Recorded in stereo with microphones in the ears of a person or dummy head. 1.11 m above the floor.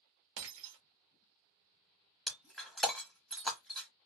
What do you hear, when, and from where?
0.4 s breaking glass: 70° right (ahead or behind), 0.9 m
2.3 s breaking glass: 5° left (ahead or behind), 0.8 m